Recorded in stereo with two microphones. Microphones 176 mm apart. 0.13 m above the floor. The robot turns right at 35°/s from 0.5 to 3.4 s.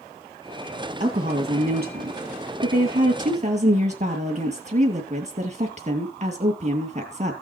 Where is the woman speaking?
135° right, 2.5 m; by 7.3 s 50° right, 2.5 m.